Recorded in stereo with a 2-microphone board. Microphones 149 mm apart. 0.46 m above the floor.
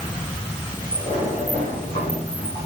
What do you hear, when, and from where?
0.9 s a sliding door: 45° left (ahead or behind), 9.5 m